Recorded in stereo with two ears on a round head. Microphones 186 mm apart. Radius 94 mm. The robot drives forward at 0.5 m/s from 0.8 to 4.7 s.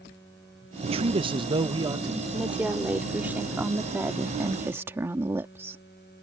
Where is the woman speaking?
5° right (ahead or behind); by 5.8 s 10° right (ahead or behind).